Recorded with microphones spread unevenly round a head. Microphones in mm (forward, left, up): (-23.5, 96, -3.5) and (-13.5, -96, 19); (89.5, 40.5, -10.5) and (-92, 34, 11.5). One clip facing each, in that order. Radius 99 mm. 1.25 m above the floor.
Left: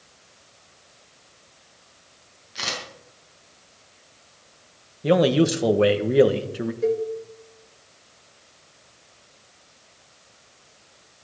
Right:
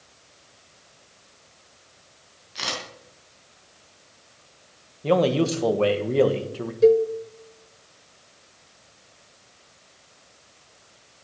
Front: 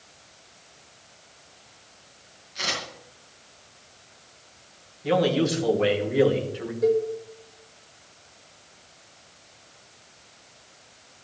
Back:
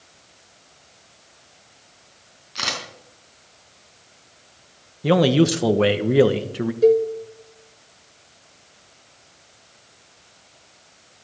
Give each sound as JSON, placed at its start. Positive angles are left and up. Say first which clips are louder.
{"t": 2.5, "sound": "a camera shutter", "louder": "even, back 1 dB", "azimuth_deg": -175, "distance_m": 5.0}
{"t": 5.0, "sound": "a man speaking", "louder": "left 2 dB, back 5 dB", "azimuth_deg": 160, "distance_m": 1.3}
{"t": 6.8, "sound": "a cowbell", "louder": "right 8 dB, back 6 dB", "azimuth_deg": -120, "distance_m": 1.1}